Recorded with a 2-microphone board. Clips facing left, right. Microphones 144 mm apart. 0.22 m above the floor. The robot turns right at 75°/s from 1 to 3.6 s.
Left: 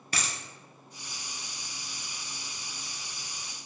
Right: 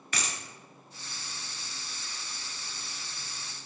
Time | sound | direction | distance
0.1 | a dropped coin | 45° left (ahead or behind) | 0.9 m